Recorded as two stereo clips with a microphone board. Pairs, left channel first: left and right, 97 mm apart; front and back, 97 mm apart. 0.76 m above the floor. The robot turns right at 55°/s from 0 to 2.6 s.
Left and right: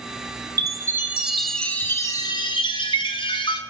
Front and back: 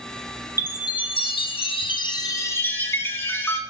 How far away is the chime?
About 0.6 m.